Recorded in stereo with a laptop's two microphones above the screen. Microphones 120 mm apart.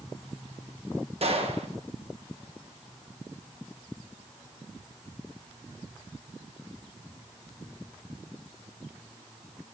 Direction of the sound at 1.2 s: 55° right (ahead or behind).